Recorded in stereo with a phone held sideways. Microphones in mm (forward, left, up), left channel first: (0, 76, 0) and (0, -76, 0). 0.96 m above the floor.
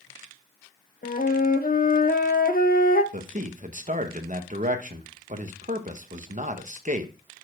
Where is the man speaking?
55° right (ahead or behind), 0.9 m.